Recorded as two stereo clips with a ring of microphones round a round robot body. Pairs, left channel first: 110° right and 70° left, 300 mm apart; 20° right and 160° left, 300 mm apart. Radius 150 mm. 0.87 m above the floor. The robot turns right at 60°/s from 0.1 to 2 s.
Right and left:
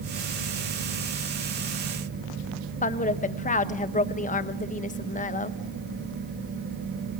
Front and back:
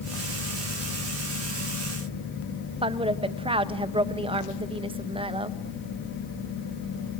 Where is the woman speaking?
150° right, 1.0 m.